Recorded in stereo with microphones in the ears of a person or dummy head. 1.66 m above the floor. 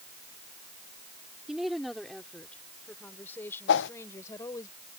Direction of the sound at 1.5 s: 5° right (ahead or behind).